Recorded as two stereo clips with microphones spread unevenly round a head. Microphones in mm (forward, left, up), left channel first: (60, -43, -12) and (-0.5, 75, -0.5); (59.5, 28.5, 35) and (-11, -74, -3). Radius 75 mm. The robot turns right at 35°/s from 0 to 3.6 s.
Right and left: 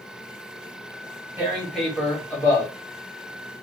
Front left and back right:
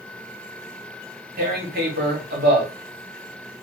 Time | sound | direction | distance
1.4 | tearing paper | 170° right | 1.6 m